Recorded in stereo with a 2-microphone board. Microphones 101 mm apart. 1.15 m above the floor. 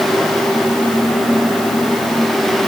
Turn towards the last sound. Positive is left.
No sound to turn to.